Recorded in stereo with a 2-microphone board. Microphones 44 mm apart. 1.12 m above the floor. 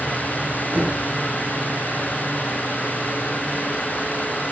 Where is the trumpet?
I don't hear a trumpet.